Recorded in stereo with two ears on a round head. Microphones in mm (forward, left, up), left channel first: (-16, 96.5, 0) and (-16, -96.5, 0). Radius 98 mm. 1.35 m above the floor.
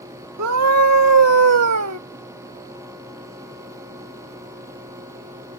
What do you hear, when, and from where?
0.4 s a scream: 85° right; by 2.0 s 70° right (ahead or behind)